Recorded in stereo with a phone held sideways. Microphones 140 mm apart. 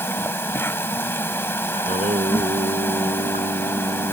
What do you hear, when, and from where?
0.0 s an insect: 15° left (ahead or behind)
1.8 s singing: 70° right (ahead or behind)